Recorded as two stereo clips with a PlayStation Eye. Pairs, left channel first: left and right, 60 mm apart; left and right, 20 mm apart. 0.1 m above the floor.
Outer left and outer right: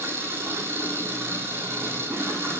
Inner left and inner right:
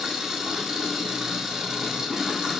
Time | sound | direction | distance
0.0 | an engine running | 40° right (ahead or behind) | 1.2 m